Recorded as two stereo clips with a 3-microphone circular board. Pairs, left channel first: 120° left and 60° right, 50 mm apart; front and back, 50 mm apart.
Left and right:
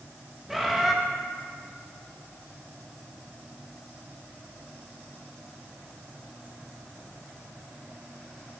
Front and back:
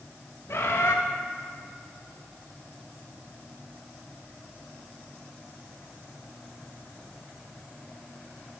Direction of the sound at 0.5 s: 25° left.